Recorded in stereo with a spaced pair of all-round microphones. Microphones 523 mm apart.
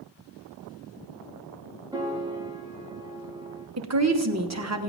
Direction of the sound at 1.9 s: 10° right (ahead or behind).